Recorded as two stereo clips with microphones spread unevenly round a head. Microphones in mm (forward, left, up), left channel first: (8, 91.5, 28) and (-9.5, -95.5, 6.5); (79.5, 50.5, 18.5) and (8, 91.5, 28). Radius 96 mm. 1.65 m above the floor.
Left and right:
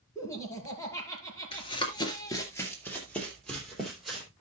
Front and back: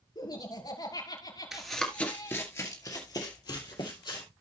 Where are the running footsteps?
80° left, 1.8 m; by 4.2 s 5° right, 4 m.